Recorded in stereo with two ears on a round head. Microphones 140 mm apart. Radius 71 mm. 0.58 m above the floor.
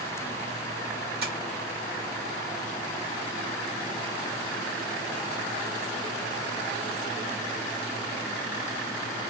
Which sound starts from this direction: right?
Tapping, at 1.2 s.